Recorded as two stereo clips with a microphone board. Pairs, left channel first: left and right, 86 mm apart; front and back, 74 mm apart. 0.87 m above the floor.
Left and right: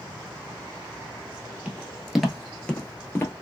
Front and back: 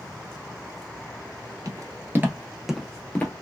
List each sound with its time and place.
1.6 s footsteps: 165° right, 1.1 m; by 3.3 s 50° left, 1.0 m